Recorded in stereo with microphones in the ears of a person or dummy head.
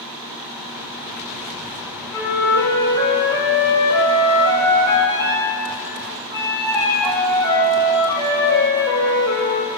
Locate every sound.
2.1 s a flute: 20° left (ahead or behind), 2.5 m